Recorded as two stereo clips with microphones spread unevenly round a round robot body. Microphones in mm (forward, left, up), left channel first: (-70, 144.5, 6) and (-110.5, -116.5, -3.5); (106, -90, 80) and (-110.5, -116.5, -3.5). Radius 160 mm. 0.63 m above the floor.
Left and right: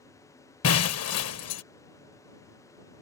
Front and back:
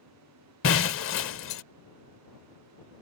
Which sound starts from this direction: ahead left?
Breaking glass, at 0.6 s.